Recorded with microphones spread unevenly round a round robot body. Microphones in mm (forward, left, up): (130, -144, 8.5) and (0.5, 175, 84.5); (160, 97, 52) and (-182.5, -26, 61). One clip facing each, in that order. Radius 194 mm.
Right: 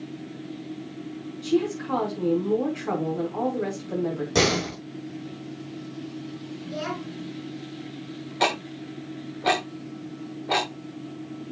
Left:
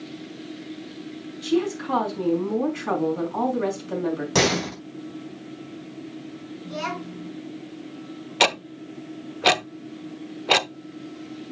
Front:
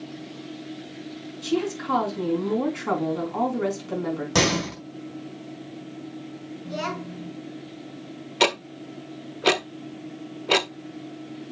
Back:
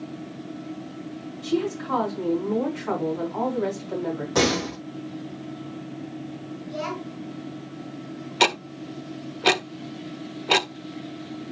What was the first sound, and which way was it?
A woman speaking, 55° left.